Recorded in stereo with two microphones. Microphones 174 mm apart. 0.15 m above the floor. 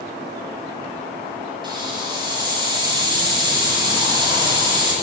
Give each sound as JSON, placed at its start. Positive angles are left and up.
{"t": 1.6, "sound": "a hiss", "side_deg": -25, "distance_m": 6.5}